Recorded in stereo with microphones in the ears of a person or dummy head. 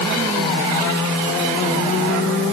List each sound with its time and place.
Only background noise.